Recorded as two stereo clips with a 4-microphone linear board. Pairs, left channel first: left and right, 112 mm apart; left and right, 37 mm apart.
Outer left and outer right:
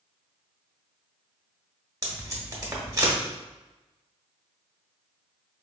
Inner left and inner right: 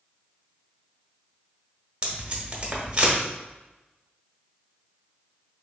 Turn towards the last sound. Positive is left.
turn(degrees=-30)  # may be behind; listen again after turning